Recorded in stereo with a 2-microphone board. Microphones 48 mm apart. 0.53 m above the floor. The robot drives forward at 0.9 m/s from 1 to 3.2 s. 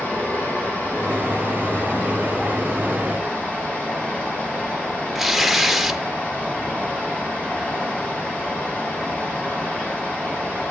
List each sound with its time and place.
0.0 s running water: 45° left (ahead or behind), 4 m; by 10.7 s 30° left (ahead or behind), 5.5 m
5.2 s tearing paper: 5° right (ahead or behind), 0.7 m